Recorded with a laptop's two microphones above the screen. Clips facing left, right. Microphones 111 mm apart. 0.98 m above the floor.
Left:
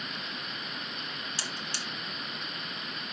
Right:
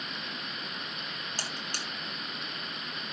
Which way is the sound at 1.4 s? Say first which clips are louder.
Even; 50° right (ahead or behind).